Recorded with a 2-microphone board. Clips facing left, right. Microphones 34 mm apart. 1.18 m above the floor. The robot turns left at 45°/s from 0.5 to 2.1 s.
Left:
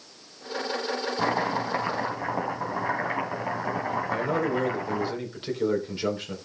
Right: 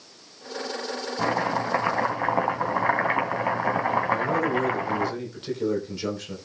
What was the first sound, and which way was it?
Chopping, straight ahead.